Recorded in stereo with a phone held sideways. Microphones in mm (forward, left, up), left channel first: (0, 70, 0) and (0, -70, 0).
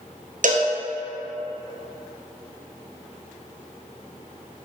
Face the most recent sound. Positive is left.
turn(degrees=-65)  # may be behind; listen again after turning